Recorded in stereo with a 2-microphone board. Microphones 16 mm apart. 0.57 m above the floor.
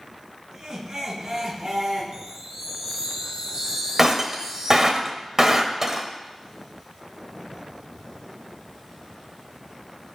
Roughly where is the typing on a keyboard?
I don't hear typing on a keyboard.